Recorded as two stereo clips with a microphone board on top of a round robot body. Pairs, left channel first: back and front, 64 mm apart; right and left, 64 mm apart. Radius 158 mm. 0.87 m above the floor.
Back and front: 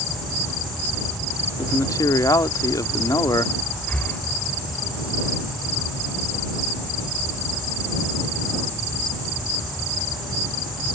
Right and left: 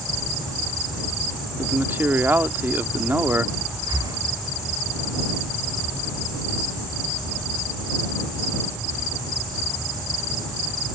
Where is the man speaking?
150° left.